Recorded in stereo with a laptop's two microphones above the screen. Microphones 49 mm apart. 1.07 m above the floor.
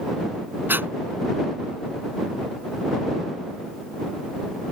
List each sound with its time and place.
0.7 s breathing: 45° right (ahead or behind)